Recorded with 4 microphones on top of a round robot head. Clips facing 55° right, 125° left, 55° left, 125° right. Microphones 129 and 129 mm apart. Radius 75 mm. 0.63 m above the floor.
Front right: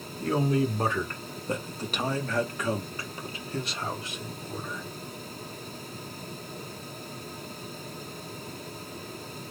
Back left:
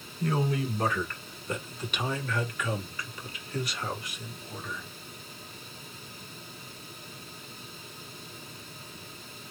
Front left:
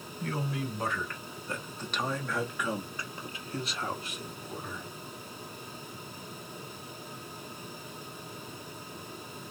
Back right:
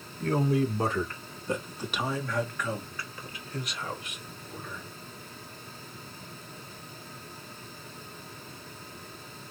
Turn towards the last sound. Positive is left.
turn(degrees=10)